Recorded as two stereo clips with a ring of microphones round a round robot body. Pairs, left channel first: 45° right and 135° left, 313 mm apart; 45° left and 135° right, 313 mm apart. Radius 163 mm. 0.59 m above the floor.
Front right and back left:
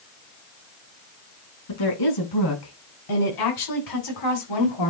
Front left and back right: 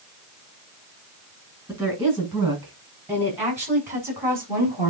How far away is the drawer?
No drawer in this recording.